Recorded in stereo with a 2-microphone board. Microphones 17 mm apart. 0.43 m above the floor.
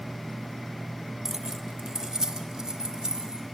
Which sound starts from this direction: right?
Keys jangling, at 1.2 s.